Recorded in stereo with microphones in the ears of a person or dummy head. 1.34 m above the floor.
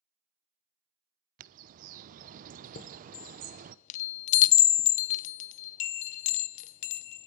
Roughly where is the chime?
Left.